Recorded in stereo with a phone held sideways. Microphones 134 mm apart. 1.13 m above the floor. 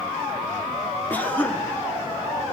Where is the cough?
15° left (ahead or behind), 1.7 m.